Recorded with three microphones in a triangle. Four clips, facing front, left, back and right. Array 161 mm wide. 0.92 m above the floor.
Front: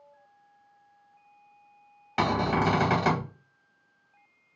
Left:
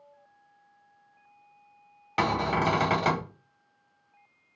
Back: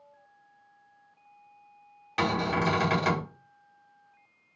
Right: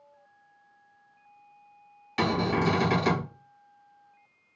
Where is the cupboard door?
50° left, 1.2 m.